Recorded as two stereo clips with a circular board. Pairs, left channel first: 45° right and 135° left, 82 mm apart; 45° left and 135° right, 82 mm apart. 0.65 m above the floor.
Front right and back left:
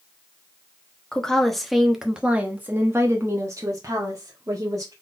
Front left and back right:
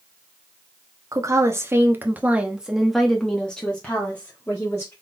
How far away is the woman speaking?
About 1.1 m.